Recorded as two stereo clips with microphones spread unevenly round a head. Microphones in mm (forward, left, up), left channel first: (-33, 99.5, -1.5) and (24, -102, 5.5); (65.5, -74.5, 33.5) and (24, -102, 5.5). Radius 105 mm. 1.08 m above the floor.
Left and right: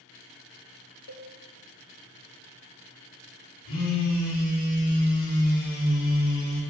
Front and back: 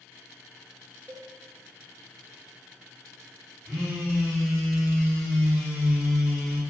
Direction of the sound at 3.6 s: 140° left.